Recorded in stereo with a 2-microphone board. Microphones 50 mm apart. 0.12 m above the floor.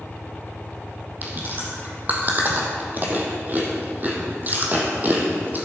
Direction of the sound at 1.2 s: 35° right (ahead or behind).